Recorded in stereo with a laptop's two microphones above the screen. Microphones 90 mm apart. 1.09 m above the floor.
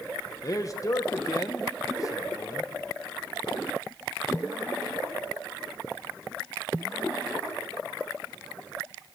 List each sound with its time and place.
0.4 s a man speaking: 40° left (ahead or behind), 0.9 m